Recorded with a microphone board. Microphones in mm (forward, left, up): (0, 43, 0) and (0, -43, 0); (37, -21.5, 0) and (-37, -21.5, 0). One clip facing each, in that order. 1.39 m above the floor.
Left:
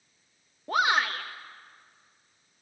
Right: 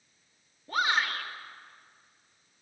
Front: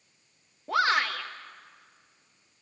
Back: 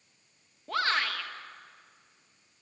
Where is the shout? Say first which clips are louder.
Left 3 dB, front 4 dB; 75° left, 1.3 m.